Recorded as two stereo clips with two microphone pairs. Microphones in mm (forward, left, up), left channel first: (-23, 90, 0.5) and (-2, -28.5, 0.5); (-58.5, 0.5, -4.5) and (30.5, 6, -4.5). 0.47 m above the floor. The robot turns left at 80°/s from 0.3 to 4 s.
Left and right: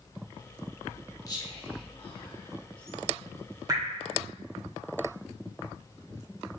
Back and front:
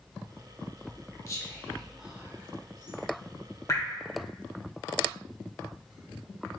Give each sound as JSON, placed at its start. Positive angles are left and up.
{"t": 1.3, "sound": "whispering", "azimuth_deg": 145, "distance_m": 1.1}
{"t": 3.7, "sound": "dripping", "azimuth_deg": -135, "distance_m": 1.1}